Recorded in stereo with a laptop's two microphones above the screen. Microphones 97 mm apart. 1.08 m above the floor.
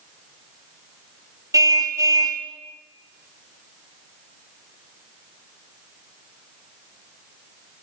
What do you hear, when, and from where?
1.5 s a car horn: 35° right (ahead or behind), 2.5 m